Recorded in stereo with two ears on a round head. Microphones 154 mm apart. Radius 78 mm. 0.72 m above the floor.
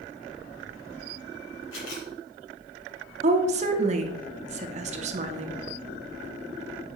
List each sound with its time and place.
1.7 s a camera shutter: 80° left, 2.5 m
3.2 s a woman speaking: 40° right (ahead or behind), 0.9 m